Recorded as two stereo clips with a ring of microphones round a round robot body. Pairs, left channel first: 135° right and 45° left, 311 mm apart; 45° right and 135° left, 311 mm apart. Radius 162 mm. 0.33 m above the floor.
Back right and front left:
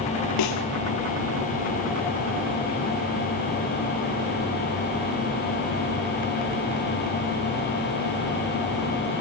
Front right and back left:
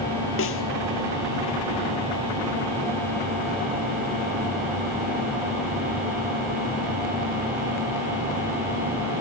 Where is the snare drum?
95° right, 1.6 m.